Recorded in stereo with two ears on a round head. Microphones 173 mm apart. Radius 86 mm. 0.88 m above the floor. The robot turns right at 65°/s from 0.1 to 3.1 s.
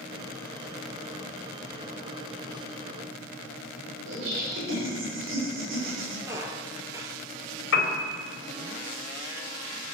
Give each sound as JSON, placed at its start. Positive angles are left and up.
{"t": 4.1, "sound": "laughter", "side_deg": -70, "distance_m": 3.5}
{"t": 6.3, "sound": "a squeak", "side_deg": -15, "distance_m": 1.1}
{"t": 7.7, "sound": "a piano", "side_deg": 75, "distance_m": 3.0}